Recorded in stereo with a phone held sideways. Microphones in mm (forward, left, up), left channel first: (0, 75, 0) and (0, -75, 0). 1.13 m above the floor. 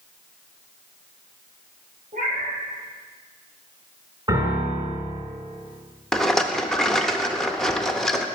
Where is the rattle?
5° left (ahead or behind), 0.6 m.